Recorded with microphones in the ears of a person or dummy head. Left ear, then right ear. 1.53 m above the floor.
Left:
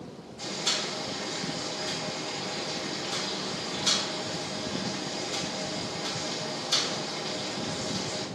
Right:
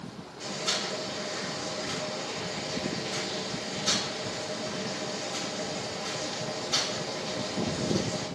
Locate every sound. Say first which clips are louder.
0.4 s boiling: left 1 dB; 75° left (ahead or behind), 1.4 m